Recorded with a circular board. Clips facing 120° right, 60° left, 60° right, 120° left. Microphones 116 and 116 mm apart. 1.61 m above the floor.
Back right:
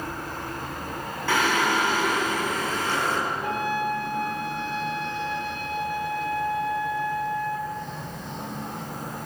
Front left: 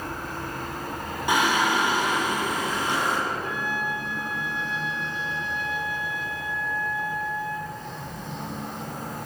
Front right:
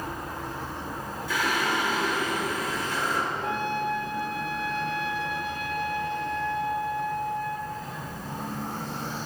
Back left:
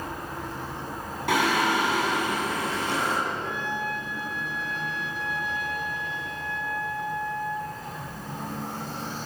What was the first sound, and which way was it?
Singing, 135° left.